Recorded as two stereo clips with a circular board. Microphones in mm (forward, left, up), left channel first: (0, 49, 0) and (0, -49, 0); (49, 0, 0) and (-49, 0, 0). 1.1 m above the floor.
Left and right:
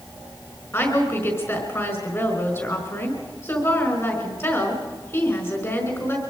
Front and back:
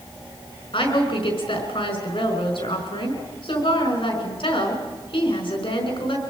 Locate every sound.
0.7 s a woman speaking: 30° left, 5 m